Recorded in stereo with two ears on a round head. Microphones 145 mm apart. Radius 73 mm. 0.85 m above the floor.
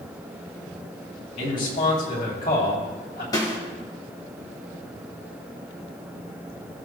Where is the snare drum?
25° left (ahead or behind), 3 m.